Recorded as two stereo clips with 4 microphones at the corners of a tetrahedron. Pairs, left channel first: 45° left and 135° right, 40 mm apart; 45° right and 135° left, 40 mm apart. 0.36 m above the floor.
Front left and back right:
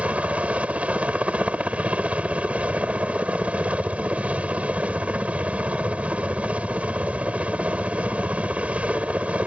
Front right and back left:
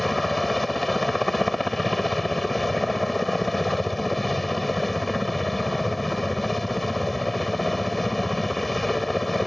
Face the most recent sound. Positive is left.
turn(degrees=-130)